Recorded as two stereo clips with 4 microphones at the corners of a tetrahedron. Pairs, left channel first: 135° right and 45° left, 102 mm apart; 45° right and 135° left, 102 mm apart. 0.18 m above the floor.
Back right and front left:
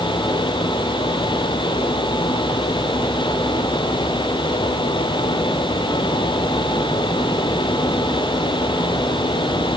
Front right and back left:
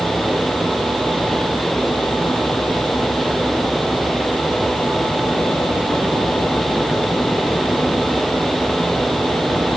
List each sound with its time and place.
Only background noise.